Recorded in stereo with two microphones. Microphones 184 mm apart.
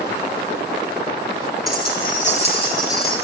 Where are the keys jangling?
60° left (ahead or behind), 1.4 m; by 3.1 s 15° left (ahead or behind), 2 m.